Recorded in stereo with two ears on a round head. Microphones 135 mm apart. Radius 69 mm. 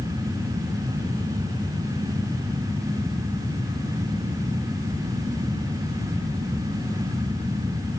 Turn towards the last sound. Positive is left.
No sound to turn to.